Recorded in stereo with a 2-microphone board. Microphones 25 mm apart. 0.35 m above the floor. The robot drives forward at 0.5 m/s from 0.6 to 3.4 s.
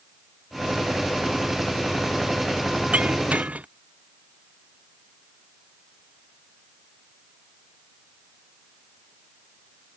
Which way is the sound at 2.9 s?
60° right (ahead or behind).